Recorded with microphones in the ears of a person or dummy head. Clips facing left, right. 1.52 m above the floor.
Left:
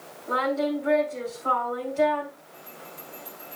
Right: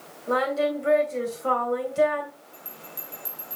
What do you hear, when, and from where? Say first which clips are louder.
0.3 s singing: right 2 dB; 50° right (ahead or behind), 2.5 m
2.5 s a bell: left 1 dB; 80° right, 5 m